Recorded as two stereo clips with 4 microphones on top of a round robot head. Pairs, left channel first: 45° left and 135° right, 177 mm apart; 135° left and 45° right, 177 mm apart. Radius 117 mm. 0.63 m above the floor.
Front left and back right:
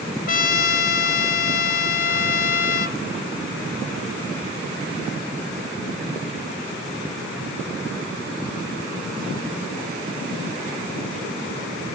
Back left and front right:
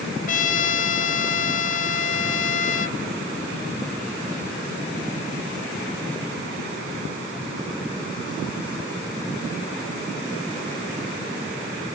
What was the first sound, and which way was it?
A trumpet, 85° left.